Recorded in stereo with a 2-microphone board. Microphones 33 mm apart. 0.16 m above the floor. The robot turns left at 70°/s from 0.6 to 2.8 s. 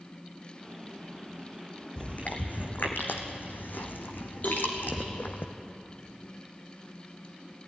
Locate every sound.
2.0 s chewing: 35° left (ahead or behind), 2.0 m; by 5.4 s 85° left, 2.0 m
4.4 s a cowbell: 50° left (ahead or behind), 5.5 m